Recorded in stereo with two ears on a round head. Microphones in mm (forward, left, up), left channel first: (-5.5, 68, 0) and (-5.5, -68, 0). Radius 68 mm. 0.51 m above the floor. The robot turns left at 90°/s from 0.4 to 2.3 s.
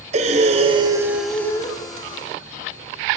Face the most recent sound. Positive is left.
turn(degrees=85)